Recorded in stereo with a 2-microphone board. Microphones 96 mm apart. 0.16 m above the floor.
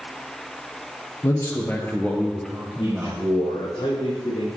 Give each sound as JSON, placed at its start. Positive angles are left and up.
{"t": 1.2, "sound": "a man speaking", "side_deg": 35, "distance_m": 2.5}
{"t": 2.8, "sound": "a man speaking", "side_deg": 70, "distance_m": 5.5}